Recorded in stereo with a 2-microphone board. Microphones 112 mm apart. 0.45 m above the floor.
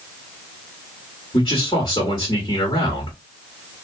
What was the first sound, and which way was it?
A man speaking, 35° left (ahead or behind).